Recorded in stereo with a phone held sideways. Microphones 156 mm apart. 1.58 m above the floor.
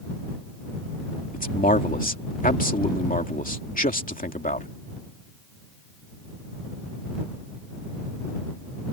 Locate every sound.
1.3 s a man speaking: 65° left (ahead or behind)